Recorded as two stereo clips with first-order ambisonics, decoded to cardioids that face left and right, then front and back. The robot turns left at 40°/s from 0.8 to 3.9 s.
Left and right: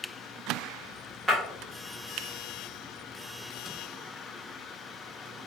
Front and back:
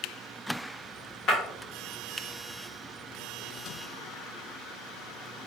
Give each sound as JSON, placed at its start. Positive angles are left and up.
{"t": 1.3, "sound": "breaking glass", "azimuth_deg": -15, "distance_m": 1.4}